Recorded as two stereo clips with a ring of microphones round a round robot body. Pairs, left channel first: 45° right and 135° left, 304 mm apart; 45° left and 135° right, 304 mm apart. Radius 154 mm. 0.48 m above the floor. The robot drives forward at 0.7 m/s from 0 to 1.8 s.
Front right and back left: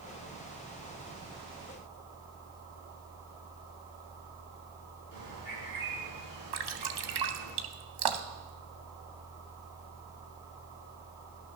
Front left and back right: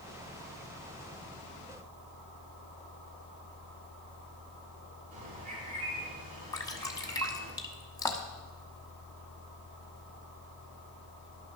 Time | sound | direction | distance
5.1 | a bird | 160° left | 6.5 m
6.5 | dripping | 125° left | 1.0 m